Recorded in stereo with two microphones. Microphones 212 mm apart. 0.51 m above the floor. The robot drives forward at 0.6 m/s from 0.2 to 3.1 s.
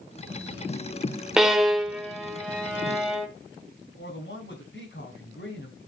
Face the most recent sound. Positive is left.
turn(degrees=60)  # may be behind; listen again after turning